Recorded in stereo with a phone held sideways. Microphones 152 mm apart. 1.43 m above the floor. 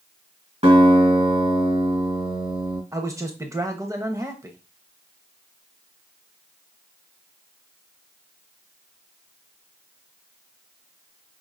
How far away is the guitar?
About 1.9 m.